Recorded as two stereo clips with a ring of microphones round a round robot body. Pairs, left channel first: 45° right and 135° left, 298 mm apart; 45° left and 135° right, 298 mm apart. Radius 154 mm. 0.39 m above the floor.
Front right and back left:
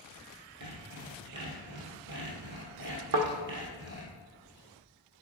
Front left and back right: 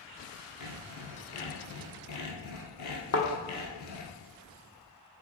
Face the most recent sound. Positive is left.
turn(degrees=85)